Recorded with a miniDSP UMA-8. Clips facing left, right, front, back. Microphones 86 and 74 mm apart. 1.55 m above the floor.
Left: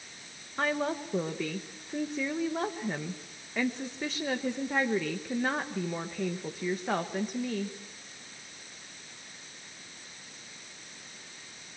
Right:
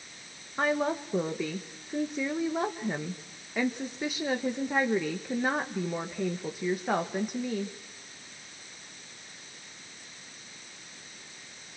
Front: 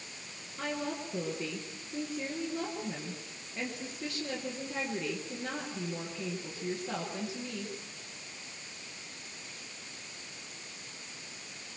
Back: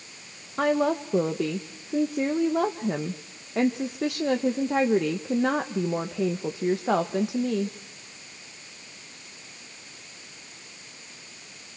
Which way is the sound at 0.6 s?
170° right.